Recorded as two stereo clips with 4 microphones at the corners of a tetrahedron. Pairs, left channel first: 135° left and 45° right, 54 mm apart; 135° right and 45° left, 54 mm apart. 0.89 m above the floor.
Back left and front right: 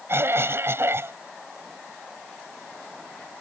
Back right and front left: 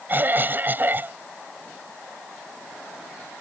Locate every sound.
0.1 s a cough: 10° right